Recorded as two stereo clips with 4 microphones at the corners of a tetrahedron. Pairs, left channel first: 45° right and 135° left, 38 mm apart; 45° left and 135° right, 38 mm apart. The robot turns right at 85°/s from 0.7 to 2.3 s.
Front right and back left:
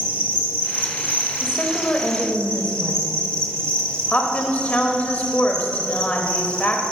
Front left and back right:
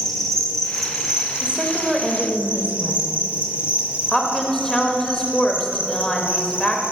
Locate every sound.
0.0 s an insect: 115° left, 1.3 m; by 6.9 s 105° right, 1.3 m
1.4 s a woman speaking: 100° right, 1.0 m; by 6.8 s 25° right, 1.0 m